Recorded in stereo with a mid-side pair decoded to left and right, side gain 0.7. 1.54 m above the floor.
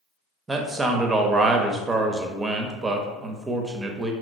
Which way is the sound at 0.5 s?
15° right.